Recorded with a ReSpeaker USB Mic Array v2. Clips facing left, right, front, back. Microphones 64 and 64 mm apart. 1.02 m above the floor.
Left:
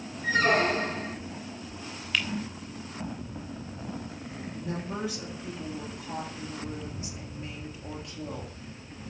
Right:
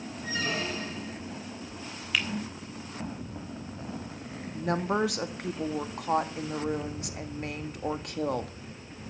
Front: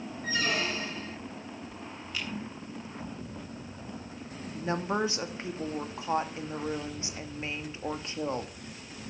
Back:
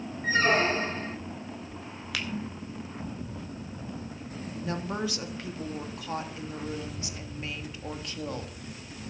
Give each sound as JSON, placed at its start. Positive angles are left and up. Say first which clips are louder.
{"t": 0.2, "sound": "a squeak", "louder": "left 9 dB, back 7 dB", "azimuth_deg": 125, "distance_m": 0.5}
{"t": 2.1, "sound": "a finger snap", "louder": "even, back 3 dB", "azimuth_deg": -175, "distance_m": 3.0}
{"t": 4.5, "sound": "a woman speaking", "louder": "right 8 dB, front 4 dB", "azimuth_deg": -65, "distance_m": 1.7}